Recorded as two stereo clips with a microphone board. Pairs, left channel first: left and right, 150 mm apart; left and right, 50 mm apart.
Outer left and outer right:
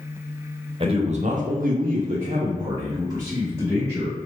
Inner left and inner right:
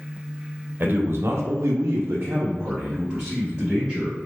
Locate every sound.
0.8 s a man speaking: 35° right (ahead or behind), 0.8 m; by 4.2 s 15° right (ahead or behind), 1.6 m